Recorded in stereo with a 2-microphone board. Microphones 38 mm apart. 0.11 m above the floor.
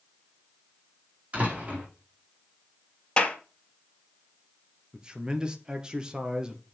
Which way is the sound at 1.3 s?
40° right (ahead or behind).